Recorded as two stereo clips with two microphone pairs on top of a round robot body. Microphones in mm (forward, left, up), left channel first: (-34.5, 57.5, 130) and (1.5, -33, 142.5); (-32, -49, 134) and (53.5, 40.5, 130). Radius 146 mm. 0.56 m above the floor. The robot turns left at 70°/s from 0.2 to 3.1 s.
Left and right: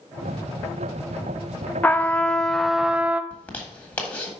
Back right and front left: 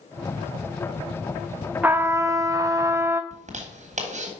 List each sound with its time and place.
1.8 s a trumpet: 100° left, 0.6 m; by 3.2 s 10° left, 0.6 m
3.3 s a zipper: 45° left, 1.6 m